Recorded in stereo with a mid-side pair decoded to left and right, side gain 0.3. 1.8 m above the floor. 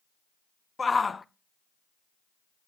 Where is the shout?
35° left, 0.7 m.